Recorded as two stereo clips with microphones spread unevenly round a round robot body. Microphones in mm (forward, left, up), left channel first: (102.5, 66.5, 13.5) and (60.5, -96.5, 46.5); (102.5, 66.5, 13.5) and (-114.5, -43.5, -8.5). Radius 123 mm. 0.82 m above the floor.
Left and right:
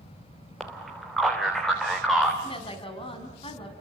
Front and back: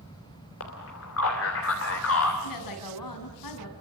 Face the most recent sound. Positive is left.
turn(degrees=20)